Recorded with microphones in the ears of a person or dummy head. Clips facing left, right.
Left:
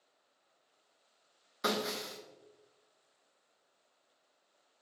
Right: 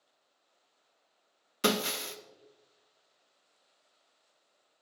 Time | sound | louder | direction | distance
1.6 | breaking glass | right 4 dB | 45° right (ahead or behind) | 0.7 m